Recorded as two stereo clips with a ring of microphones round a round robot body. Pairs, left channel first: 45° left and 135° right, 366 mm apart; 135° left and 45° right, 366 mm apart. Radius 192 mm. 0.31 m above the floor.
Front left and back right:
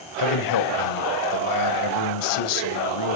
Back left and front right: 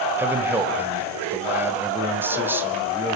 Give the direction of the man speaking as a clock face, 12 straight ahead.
11 o'clock.